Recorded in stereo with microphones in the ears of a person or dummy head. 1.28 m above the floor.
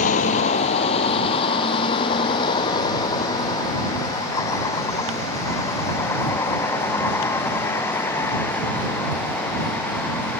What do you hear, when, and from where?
0.0 s a vehicle: 40° left (ahead or behind); by 10.4 s 10° left (ahead or behind)